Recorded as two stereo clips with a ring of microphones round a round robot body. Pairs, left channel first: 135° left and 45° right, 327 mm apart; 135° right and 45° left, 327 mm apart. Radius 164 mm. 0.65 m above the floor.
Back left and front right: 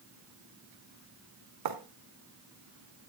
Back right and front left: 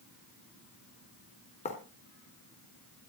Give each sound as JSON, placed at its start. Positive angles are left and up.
{"t": 1.6, "sound": "writing", "azimuth_deg": -65, "distance_m": 1.4}